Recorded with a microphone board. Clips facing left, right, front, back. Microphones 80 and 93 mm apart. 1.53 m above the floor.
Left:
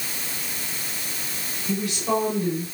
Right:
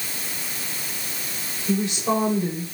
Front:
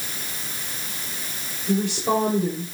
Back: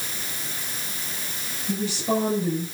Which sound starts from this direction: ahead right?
A woman speaking, at 1.7 s.